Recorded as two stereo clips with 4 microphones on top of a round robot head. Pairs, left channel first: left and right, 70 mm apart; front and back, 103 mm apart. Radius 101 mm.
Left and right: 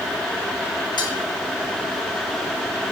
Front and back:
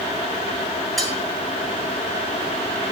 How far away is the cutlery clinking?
About 3 m.